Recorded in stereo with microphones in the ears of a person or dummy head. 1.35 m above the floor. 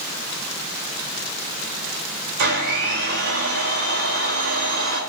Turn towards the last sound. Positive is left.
turn(degrees=-75)  # may be behind; listen again after turning